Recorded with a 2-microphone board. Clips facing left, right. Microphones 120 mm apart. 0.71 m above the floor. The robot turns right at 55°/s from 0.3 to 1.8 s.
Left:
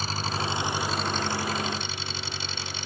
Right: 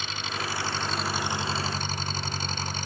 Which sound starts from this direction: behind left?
An engine running, at 0.0 s.